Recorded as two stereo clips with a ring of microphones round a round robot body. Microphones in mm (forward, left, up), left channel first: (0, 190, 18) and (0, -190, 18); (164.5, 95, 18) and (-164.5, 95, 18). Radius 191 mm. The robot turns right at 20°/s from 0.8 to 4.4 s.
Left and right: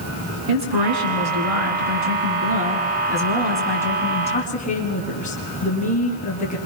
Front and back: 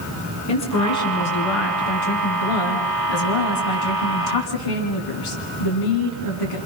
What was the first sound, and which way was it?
A woman speaking, 55° right.